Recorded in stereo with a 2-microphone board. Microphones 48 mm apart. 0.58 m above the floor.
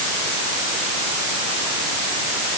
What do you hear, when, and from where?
Only background noise.